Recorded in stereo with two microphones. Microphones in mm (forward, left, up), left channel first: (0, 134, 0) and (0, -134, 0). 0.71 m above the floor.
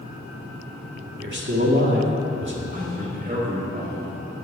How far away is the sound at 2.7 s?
About 1.4 m.